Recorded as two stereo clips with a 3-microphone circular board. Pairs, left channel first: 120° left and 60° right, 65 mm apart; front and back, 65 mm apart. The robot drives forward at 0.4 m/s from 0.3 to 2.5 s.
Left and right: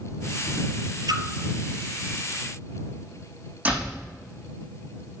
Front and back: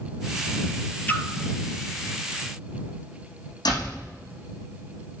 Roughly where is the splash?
Ahead right.